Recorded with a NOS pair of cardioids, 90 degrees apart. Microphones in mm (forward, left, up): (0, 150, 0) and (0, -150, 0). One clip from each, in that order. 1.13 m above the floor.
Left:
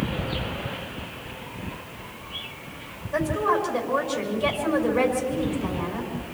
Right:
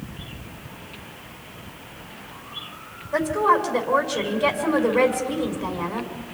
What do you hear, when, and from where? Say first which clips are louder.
3.1 s a woman speaking: right 4 dB; 35° right, 5.5 m